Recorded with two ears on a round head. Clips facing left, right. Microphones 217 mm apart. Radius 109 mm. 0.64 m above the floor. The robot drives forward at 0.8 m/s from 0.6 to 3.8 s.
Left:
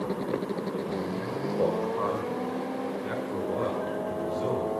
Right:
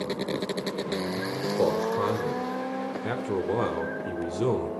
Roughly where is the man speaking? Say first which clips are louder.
Right 3 dB; right.